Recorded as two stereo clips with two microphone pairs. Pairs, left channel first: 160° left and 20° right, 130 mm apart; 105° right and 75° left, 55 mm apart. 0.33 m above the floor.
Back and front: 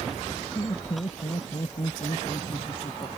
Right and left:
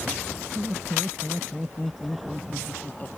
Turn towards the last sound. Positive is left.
turn(degrees=-155)